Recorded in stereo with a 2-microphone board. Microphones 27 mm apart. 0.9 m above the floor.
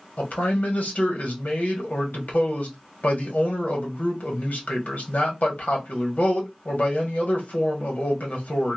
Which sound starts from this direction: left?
A man speaking, at 0.2 s.